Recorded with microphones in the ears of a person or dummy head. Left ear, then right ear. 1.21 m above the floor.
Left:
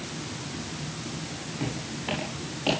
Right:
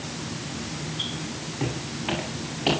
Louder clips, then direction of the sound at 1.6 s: Right 3 dB; 5° left (ahead or behind).